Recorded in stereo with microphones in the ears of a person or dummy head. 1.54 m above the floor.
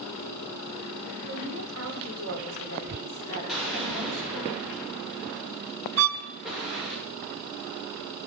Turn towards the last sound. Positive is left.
turn(degrees=-75)  # may be behind; listen again after turning